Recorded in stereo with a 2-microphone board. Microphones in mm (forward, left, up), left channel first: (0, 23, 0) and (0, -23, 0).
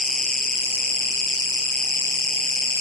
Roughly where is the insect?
Centre.